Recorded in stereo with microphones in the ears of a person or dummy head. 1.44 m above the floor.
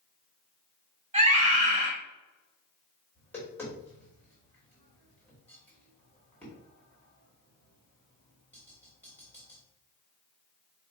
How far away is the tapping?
About 3 m.